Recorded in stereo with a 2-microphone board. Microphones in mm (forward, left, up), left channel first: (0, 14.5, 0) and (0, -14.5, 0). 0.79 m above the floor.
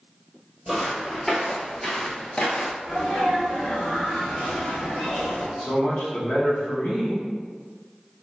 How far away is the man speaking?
About 1.3 m.